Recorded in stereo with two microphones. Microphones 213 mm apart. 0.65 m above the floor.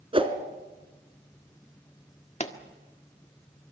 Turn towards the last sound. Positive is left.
turn(degrees=35)  # may be behind; listen again after turning